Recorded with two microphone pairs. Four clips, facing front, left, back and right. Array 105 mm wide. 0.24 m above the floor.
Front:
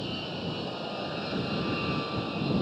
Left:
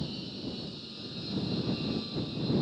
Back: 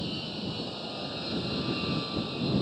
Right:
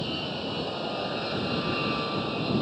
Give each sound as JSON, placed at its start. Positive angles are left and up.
{"t": 0.0, "sound": "an aircraft", "azimuth_deg": -80}